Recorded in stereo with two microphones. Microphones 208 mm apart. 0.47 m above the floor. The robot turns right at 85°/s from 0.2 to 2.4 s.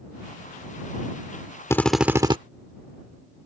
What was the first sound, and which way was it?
A drill, 160° left.